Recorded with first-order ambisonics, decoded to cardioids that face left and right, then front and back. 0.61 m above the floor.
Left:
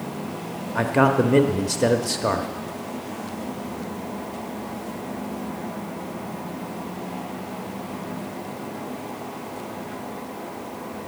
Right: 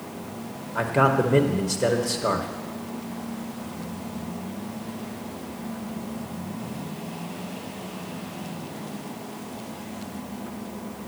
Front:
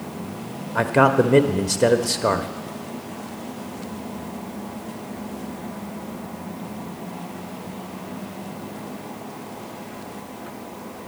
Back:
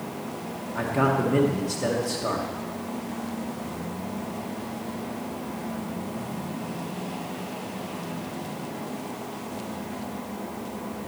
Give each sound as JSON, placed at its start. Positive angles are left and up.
{"t": 0.8, "sound": "a man speaking", "azimuth_deg": 20, "distance_m": 0.6}